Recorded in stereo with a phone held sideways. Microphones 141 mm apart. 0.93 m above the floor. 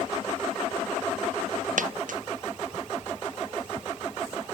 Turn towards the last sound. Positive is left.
turn(degrees=-80)